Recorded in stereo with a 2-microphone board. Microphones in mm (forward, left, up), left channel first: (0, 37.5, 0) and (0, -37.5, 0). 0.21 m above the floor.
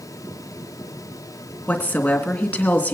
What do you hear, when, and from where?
1.7 s a woman speaking: 20° left (ahead or behind), 2.5 m